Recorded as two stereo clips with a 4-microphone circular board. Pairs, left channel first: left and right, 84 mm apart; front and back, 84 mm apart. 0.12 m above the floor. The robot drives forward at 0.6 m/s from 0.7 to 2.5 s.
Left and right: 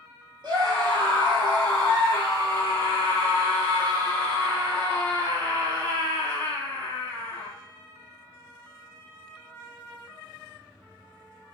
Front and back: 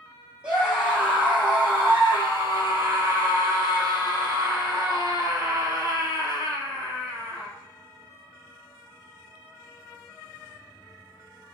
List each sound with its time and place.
0.4 s a scream: 105° right, 3 m; by 7.5 s 125° right, 3.5 m